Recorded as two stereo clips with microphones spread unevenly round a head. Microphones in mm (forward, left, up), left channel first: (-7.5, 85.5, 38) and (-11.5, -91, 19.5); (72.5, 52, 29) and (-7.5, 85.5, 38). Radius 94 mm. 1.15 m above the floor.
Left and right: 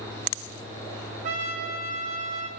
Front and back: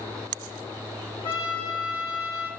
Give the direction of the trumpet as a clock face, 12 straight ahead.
2 o'clock.